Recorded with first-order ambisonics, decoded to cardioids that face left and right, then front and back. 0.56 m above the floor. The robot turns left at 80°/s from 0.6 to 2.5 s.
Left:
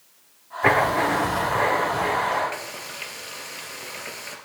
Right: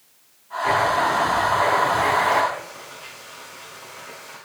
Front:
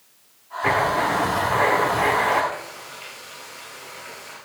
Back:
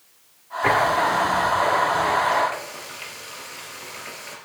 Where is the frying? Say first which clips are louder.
Left 1 dB, back 2 dB; 110° left, 2.5 m.